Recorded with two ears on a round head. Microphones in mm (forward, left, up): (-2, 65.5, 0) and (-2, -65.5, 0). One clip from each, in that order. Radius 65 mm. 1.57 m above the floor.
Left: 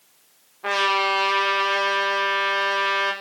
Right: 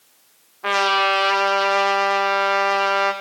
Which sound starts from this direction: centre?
A trumpet, at 0.6 s.